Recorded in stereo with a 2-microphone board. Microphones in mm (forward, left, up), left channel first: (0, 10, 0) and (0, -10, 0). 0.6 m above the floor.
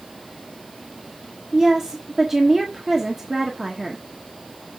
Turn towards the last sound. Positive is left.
turn(degrees=-20)  # may be behind; listen again after turning